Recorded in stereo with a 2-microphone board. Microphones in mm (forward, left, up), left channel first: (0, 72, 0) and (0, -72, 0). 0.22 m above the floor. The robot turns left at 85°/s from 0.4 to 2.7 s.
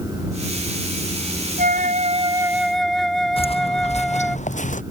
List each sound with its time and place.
1.6 s a flute: 90° right; by 4.4 s 175° left
3.4 s footsteps: 40° left (ahead or behind); by 4.8 s 60° left (ahead or behind)